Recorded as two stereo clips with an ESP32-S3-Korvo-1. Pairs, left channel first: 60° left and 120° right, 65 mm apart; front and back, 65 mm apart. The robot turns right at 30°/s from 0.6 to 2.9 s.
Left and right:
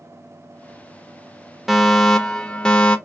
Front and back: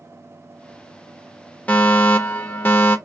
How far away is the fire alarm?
About 0.9 m.